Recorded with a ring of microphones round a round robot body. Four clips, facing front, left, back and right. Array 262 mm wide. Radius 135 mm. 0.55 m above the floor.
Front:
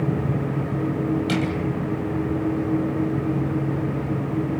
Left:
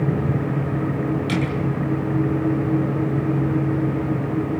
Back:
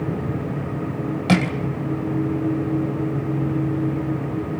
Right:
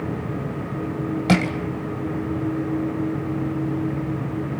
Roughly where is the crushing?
Behind right.